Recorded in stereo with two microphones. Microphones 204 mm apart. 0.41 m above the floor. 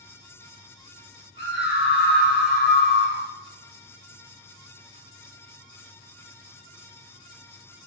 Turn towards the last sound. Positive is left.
turn(degrees=60)  # may be behind; listen again after turning